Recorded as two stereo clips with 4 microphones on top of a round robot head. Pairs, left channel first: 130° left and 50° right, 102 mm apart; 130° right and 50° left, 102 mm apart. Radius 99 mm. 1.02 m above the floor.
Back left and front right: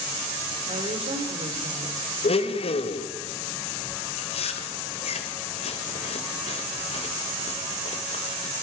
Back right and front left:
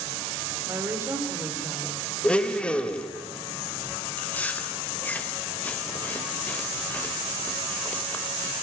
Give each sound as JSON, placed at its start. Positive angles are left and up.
{"t": 0.7, "sound": "a woman speaking", "azimuth_deg": -15, "distance_m": 3.5}
{"t": 2.2, "sound": "a blender", "azimuth_deg": 150, "distance_m": 1.5}
{"t": 4.2, "sound": "chewing", "azimuth_deg": 155, "distance_m": 2.0}